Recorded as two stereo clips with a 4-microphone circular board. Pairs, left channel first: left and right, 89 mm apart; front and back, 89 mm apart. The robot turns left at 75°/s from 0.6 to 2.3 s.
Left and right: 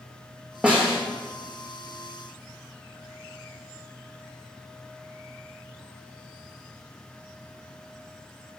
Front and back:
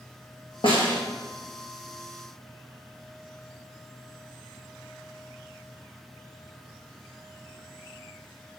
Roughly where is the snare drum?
Ahead.